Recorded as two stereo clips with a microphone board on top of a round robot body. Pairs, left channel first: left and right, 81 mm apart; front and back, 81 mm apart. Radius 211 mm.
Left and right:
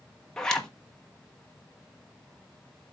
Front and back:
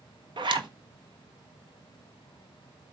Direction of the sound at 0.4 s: 170° left.